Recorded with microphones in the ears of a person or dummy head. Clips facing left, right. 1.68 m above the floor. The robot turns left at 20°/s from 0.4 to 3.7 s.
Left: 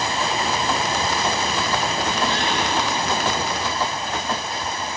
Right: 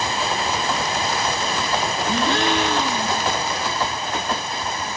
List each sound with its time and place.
2.1 s a gasp: 65° right (ahead or behind), 1.5 m; by 3.3 s 85° right, 1.5 m